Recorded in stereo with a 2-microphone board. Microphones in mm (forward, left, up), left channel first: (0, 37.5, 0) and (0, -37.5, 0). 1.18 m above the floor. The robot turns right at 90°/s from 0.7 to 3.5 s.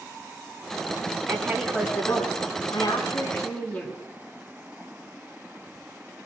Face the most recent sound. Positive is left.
turn(degrees=165)